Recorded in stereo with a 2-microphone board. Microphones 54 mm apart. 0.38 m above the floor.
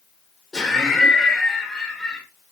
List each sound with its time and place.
0.5 s laughter: 10° left (ahead or behind), 0.8 m